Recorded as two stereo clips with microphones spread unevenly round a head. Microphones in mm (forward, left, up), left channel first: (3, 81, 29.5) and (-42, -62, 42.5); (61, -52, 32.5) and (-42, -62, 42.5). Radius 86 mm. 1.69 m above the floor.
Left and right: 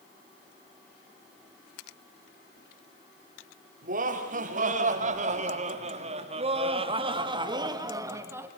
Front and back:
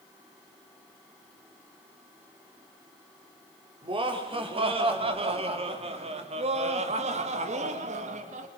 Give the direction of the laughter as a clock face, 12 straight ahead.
5 o'clock.